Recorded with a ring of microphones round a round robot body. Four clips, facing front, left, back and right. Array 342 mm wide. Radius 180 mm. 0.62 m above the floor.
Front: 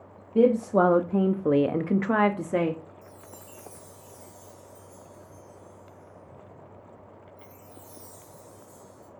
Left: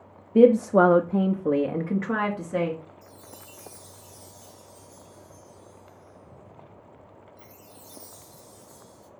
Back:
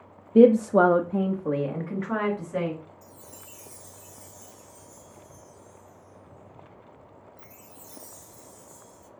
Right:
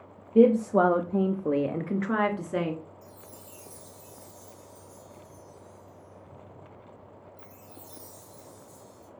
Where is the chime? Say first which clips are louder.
Left 1 dB, front 2 dB; 150° left, 0.5 m.